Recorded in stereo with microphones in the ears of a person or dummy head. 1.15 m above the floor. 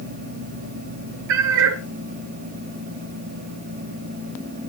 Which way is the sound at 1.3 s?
65° right (ahead or behind).